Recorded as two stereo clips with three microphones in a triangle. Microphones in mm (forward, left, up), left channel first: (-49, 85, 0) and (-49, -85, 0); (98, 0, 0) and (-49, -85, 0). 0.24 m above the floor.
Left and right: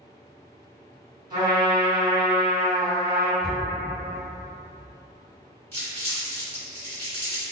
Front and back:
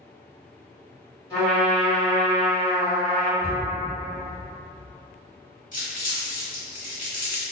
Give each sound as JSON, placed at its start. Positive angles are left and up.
{"t": 1.3, "sound": "a trumpet", "azimuth_deg": -30, "distance_m": 1.5}
{"t": 3.4, "sound": "a cupboard door", "azimuth_deg": 0, "distance_m": 1.4}
{"t": 5.7, "sound": "crumpling", "azimuth_deg": 20, "distance_m": 1.8}